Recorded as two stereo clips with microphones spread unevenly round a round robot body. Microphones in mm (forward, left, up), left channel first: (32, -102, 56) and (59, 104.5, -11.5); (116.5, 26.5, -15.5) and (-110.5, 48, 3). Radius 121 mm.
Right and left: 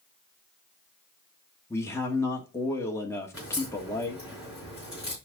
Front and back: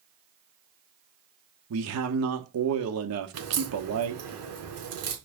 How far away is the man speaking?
About 1.4 m.